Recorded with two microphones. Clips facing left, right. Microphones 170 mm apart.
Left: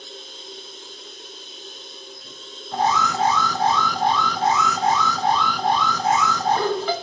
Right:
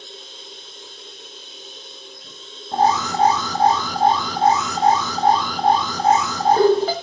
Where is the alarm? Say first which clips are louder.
Right 3 dB; 35° right (ahead or behind), 1.5 m.